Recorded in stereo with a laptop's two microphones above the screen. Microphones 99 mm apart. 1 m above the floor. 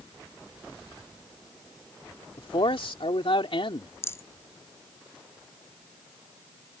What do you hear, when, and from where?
2.4 s a man speaking: 60° left (ahead or behind)
4.0 s a rattle: 25° left (ahead or behind)